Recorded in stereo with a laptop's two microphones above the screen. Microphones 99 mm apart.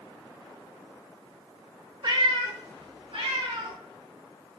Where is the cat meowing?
50° right (ahead or behind), 1.0 m; by 3.8 s 70° right (ahead or behind), 2.5 m.